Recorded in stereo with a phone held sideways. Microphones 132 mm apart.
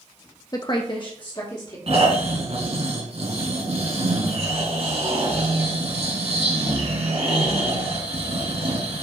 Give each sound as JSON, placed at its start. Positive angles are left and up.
{"t": 0.5, "sound": "a woman speaking", "side_deg": 30, "distance_m": 0.6}
{"t": 1.9, "sound": "snoring", "side_deg": -50, "distance_m": 2.0}